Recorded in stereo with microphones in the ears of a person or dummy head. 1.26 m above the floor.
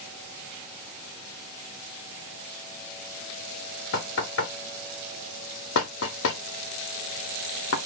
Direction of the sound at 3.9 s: 70° left (ahead or behind).